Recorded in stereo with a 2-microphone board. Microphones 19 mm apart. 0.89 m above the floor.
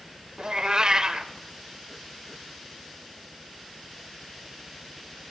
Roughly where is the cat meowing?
Right.